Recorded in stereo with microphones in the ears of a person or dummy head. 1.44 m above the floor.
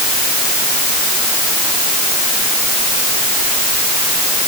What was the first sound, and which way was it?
Only background noise.